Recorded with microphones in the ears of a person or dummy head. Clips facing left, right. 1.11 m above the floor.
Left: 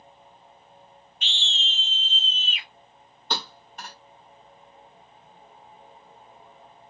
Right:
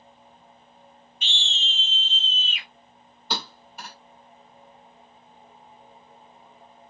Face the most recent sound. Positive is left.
turn(degrees=-5)  # may be behind; listen again after turning